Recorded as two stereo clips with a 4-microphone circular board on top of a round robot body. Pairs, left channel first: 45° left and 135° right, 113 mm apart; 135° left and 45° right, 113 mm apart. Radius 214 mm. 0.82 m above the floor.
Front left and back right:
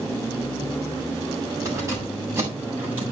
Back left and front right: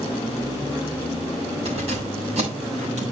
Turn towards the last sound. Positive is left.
turn(degrees=-60)